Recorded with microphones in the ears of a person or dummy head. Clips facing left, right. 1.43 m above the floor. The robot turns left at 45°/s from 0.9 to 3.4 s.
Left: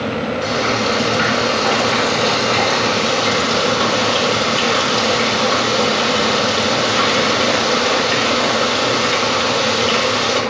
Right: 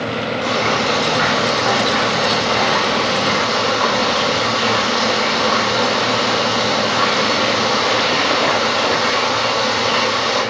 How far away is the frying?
About 7.5 m.